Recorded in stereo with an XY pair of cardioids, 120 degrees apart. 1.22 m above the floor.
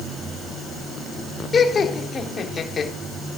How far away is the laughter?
About 3.5 m.